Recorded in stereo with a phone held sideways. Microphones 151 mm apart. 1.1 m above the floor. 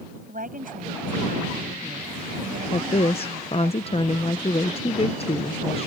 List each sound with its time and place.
0.3 s a woman speaking: 65° right (ahead or behind)
2.7 s a woman speaking: 40° left (ahead or behind)